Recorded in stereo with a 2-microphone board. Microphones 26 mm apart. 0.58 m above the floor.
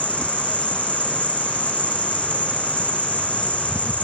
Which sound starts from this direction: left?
An insect, at 0.0 s.